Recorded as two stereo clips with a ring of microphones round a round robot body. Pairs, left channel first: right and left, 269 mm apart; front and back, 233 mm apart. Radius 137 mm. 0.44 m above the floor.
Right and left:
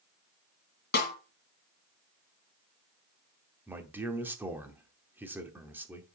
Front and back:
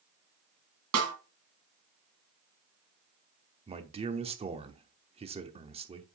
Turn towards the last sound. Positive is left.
turn(degrees=165)